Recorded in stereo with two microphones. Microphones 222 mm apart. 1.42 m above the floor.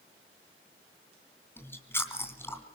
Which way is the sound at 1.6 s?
10° left (ahead or behind).